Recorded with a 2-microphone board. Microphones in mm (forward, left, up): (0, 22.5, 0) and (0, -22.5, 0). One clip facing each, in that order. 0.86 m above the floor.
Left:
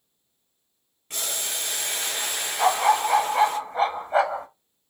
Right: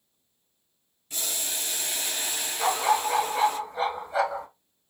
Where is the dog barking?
55° left (ahead or behind), 1.0 m.